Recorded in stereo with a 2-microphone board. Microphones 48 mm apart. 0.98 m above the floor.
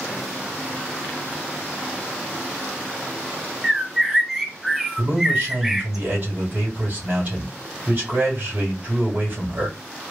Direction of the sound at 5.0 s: 40° right (ahead or behind).